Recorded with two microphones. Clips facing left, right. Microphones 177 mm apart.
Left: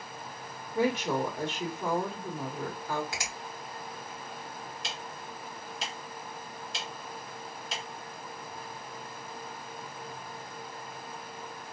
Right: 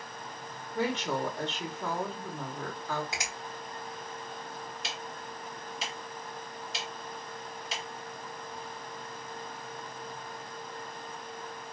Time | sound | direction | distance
0.8 | a woman speaking | 10° left (ahead or behind) | 1.0 m
3.1 | a finger snap | 20° right (ahead or behind) | 2.5 m
4.8 | ticking | 5° right (ahead or behind) | 1.2 m